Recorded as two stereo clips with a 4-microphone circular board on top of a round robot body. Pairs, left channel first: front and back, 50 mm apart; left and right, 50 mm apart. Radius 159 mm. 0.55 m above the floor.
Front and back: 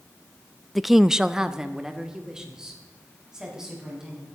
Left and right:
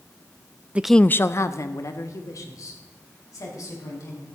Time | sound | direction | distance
0.8 | a woman speaking | 85° right | 0.6 m